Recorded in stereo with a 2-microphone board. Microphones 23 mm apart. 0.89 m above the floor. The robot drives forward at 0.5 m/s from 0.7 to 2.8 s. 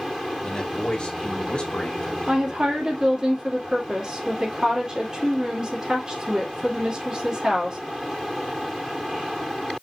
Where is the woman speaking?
35° right (ahead or behind), 2 m.